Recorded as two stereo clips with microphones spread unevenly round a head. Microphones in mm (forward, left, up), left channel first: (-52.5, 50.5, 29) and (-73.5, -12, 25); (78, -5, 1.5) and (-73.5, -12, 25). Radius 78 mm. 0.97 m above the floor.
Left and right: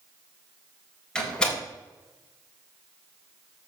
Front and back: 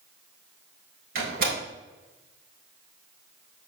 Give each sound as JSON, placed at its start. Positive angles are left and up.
{"t": 1.1, "sound": "a door slam", "azimuth_deg": 150, "distance_m": 3.5}